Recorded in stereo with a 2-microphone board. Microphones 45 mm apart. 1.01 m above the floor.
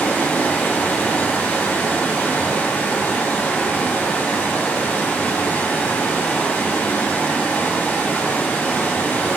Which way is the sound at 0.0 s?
40° left (ahead or behind).